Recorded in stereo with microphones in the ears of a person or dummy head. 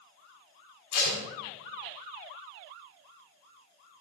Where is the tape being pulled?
70° left (ahead or behind), 4.5 m.